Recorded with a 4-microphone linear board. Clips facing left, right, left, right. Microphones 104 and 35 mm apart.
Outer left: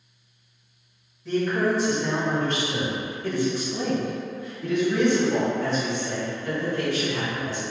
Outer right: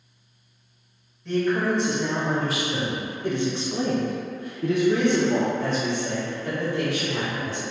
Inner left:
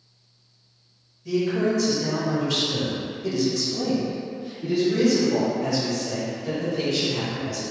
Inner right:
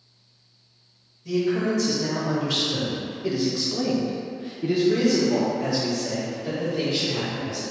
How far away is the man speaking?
About 1.6 m.